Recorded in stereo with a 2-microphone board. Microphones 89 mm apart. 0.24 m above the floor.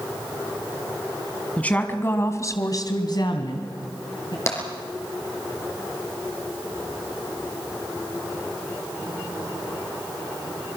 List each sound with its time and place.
1.6 s a woman speaking: 15° left (ahead or behind), 2.5 m; by 4.4 s 45° left (ahead or behind), 3.5 m
4.5 s tapping: 30° left (ahead or behind), 4 m